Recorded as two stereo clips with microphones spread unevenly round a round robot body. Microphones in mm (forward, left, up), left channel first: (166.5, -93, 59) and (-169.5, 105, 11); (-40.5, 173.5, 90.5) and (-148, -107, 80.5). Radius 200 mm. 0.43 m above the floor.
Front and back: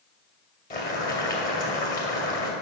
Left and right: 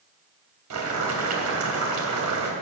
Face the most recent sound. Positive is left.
turn(degrees=-100)